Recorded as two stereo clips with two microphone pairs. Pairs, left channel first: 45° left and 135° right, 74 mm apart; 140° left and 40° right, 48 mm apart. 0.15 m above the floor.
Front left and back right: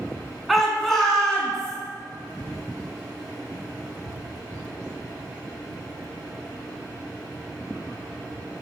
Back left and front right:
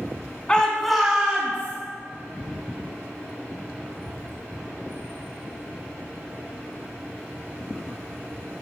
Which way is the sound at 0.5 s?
135° left.